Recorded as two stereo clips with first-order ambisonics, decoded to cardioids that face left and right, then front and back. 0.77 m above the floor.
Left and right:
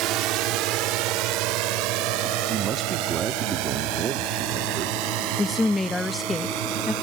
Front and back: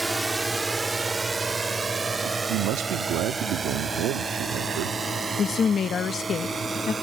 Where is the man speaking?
150° right.